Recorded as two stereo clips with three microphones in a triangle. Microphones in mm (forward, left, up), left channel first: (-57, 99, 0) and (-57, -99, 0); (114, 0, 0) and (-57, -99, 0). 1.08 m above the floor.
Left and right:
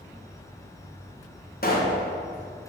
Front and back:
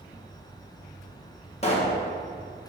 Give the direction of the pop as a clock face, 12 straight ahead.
9 o'clock.